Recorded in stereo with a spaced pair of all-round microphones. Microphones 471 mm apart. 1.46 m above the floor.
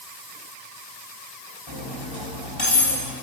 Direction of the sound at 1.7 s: 70° left (ahead or behind).